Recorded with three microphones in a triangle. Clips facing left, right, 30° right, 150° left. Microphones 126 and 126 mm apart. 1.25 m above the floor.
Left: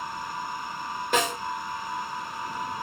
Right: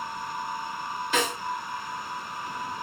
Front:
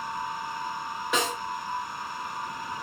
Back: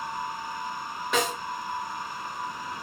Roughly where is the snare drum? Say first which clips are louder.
Left 2 dB, back 1 dB; ahead left.